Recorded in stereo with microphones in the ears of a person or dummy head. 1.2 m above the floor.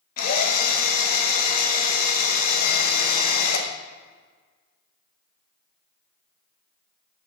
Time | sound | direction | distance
0.2 | a drill | 55° left (ahead or behind) | 0.9 m